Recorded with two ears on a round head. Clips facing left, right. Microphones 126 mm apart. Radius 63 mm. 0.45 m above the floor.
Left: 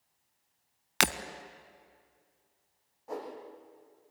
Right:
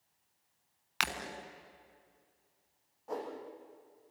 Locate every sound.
1.0 s breaking glass: 60° left (ahead or behind), 1.0 m
3.1 s a whoosh: 5° left (ahead or behind), 6 m